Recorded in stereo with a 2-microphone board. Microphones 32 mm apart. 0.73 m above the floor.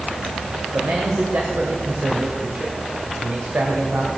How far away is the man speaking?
About 2.5 m.